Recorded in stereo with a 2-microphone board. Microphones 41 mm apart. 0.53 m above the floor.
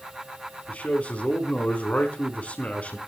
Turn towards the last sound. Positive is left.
turn(degrees=35)  # may be behind; listen again after turning